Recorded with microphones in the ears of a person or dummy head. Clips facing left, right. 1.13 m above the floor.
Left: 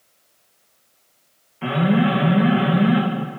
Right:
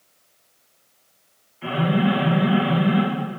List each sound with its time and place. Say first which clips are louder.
1.6 s an alarm: left 3 dB; 70° left (ahead or behind), 2 m